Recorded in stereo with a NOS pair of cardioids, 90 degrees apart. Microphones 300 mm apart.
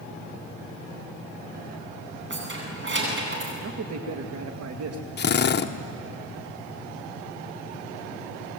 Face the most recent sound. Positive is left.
turn(degrees=35)